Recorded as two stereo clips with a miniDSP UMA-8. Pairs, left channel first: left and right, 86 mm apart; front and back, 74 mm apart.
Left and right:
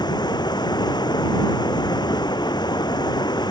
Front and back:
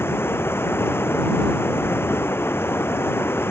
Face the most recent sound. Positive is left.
turn(degrees=55)